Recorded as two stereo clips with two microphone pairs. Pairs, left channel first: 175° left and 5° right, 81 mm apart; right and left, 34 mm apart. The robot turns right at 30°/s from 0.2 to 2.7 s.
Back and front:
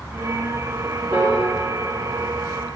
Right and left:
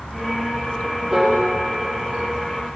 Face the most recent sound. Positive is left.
turn(degrees=55)